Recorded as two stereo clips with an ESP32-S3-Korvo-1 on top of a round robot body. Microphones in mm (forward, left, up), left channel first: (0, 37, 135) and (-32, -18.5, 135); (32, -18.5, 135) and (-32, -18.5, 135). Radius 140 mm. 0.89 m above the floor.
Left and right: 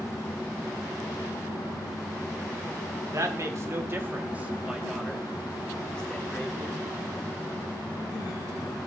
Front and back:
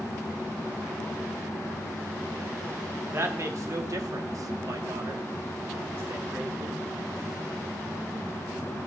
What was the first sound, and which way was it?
A woman speaking, 140° right.